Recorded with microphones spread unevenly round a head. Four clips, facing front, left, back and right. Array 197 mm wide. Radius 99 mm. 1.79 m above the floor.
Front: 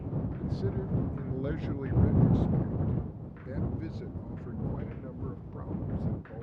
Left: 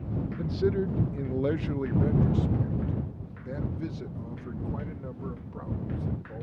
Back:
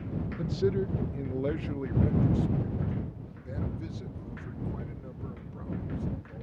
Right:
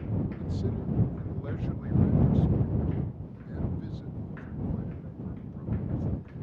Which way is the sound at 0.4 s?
135° left.